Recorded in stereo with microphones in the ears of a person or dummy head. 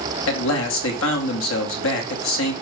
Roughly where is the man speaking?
Left.